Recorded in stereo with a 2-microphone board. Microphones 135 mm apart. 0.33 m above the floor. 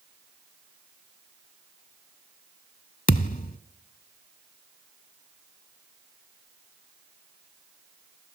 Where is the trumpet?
No trumpet in this recording.